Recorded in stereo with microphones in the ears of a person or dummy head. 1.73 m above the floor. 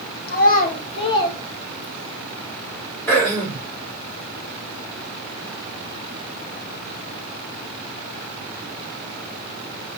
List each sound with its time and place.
0.3 s a child speaking: 60° left (ahead or behind), 2.5 m; by 2.2 s centre (ahead or behind), 3 m
3.1 s throat clearing: 15° left (ahead or behind), 5 m